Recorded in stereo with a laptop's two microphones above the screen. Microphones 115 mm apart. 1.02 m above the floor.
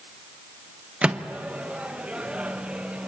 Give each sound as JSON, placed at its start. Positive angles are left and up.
{"t": 1.0, "sound": "a microwave", "side_deg": -10, "distance_m": 0.9}